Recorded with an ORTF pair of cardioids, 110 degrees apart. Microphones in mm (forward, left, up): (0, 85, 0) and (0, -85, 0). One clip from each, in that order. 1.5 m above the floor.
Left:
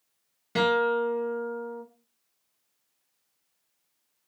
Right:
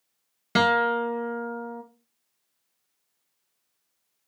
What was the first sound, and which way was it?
A guitar, 45° right.